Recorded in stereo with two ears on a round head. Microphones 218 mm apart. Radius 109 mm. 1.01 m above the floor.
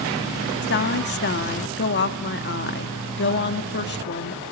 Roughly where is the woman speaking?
Left.